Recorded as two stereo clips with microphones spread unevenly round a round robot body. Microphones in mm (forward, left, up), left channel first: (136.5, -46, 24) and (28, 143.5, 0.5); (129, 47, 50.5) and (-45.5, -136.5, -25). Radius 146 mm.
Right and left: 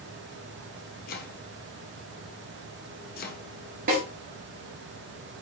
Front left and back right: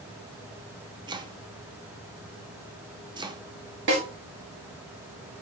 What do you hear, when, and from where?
1.1 s chopping: 90° right, 0.6 m
3.9 s a snare drum: 175° left, 1.0 m